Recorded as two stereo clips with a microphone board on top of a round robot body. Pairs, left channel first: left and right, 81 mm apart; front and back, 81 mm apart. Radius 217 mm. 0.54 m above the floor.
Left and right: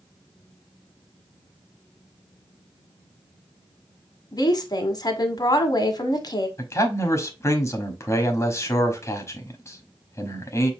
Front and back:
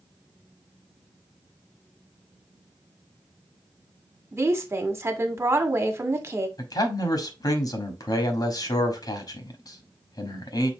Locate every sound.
4.3 s a woman speaking: 125° left, 1.6 m
6.6 s a man speaking: 35° left, 1.4 m